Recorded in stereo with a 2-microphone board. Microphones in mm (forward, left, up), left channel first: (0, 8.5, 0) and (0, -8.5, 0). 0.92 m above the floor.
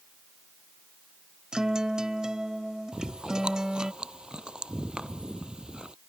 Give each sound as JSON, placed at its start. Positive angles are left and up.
{"t": 1.5, "sound": "a guitar", "side_deg": -50}
{"t": 2.9, "sound": "chewing", "side_deg": -70}